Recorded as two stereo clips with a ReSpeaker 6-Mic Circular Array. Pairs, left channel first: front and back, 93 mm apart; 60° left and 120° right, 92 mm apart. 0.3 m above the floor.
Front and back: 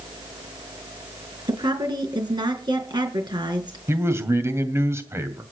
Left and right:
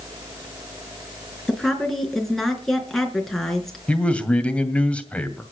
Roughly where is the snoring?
I don't hear snoring.